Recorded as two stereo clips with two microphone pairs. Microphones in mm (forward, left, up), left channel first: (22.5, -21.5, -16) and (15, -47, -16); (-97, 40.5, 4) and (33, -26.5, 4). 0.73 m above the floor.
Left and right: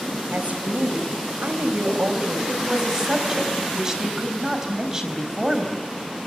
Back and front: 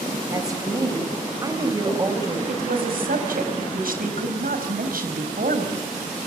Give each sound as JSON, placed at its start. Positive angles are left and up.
{"t": 0.3, "sound": "a woman speaking", "azimuth_deg": -95, "distance_m": 4.0}
{"t": 2.5, "sound": "a woman speaking", "azimuth_deg": -35, "distance_m": 4.5}